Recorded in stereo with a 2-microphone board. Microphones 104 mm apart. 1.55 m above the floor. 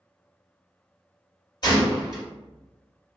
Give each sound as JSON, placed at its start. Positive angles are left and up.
{"t": 1.6, "sound": "a gunshot", "side_deg": 40, "distance_m": 1.6}